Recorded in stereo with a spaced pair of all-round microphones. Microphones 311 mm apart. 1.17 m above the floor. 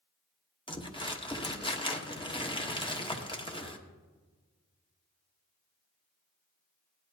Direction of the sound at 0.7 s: 15° left (ahead or behind).